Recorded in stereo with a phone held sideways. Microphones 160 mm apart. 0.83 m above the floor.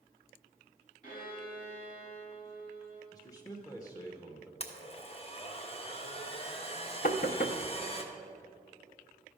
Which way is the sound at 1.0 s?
55° left (ahead or behind).